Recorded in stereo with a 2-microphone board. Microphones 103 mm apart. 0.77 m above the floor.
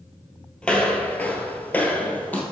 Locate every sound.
0.6 s footsteps: 10° left (ahead or behind), 0.9 m; by 2.4 s 15° left (ahead or behind), 1.1 m